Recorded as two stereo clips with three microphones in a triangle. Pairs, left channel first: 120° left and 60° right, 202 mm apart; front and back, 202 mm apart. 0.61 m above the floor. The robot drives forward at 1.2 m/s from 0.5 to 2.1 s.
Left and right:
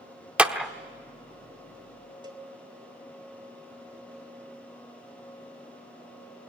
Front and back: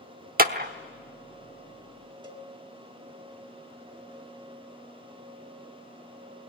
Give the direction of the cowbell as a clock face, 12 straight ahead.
4 o'clock.